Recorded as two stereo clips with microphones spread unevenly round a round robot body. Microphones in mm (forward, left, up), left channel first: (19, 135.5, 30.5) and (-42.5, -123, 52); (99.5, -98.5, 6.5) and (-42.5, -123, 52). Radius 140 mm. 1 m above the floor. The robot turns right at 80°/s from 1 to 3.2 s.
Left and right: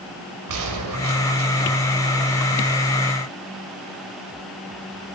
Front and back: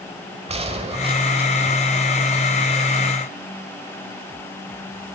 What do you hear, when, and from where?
0.5 s a gunshot: 125° right, 4 m; by 1.5 s 85° right, 4 m